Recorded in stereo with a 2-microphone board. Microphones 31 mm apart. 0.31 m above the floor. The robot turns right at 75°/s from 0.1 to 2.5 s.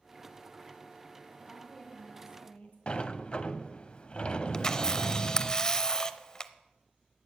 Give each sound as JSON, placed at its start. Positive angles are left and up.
{"t": 1.4, "sound": "a woman speaking", "azimuth_deg": 0, "distance_m": 2.0}
{"t": 2.9, "sound": "a sliding door", "side_deg": 35, "distance_m": 0.6}
{"t": 4.5, "sound": "a camera shutter", "side_deg": 20, "distance_m": 0.5}